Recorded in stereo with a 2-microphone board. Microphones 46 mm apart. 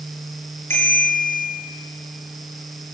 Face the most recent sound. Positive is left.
turn(degrees=55)  # may be behind; listen again after turning